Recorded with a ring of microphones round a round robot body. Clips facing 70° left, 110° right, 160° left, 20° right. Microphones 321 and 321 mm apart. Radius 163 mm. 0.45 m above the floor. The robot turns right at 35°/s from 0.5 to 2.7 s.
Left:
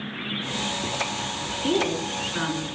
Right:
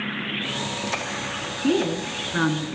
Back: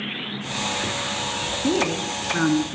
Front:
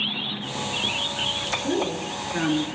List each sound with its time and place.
1.6 s a woman speaking: 165° right, 4 m; by 2.8 s 130° right, 4 m